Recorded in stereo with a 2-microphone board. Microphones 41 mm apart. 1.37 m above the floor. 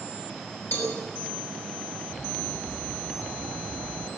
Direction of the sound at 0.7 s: 80° left.